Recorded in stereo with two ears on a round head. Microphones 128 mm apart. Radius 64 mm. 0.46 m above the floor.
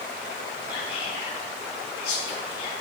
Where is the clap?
I don't hear a clap.